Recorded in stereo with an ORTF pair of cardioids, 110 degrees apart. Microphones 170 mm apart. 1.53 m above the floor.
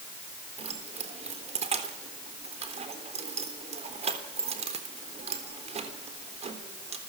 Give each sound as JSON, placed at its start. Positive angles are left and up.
{"t": 0.6, "sound": "keys jangling", "azimuth_deg": -40, "distance_m": 3.5}